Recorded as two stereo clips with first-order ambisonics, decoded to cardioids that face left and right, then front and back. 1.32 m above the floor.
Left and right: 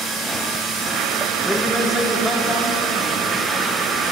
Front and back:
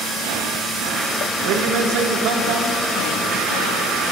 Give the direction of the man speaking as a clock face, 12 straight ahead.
6 o'clock.